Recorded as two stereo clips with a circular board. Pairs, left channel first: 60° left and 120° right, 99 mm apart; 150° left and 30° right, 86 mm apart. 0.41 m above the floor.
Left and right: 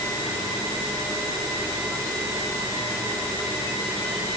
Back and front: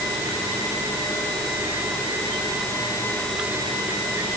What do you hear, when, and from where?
Only background noise.